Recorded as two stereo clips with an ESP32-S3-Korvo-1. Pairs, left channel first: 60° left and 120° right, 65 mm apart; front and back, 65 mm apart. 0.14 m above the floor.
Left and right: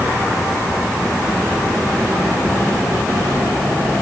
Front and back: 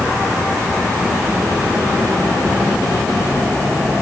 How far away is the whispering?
I don't hear whispering.